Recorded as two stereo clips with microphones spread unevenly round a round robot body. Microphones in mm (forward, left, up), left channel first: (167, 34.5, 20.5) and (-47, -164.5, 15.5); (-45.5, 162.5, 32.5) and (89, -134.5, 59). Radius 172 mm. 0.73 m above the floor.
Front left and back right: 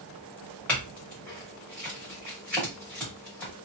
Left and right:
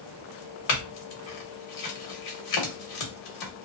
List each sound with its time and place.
0.7 s a clink: 130° left, 1.2 m